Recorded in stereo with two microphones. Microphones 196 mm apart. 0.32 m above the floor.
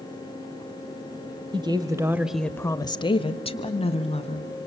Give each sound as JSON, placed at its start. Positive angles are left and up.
{"t": 1.5, "sound": "a woman speaking", "side_deg": -25, "distance_m": 1.4}